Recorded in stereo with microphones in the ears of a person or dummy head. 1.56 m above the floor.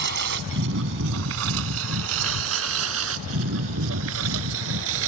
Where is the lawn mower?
60° right (ahead or behind); by 5.1 s 80° right.